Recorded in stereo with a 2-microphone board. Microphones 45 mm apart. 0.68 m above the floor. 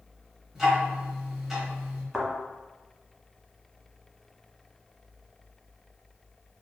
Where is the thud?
Centre (ahead or behind), 1.2 m.